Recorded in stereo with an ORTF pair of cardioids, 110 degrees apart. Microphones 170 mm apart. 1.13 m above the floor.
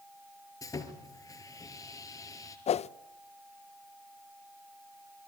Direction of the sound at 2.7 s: 40° left.